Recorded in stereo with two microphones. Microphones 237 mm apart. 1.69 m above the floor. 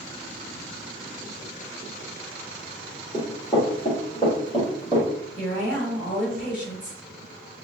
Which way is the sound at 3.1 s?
30° left (ahead or behind).